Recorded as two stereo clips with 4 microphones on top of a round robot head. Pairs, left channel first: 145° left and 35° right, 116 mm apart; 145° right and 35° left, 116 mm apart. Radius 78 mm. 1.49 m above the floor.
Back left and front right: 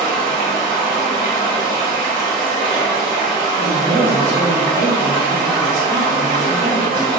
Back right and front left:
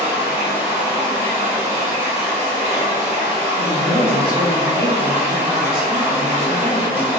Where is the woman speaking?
5° right, 0.7 m.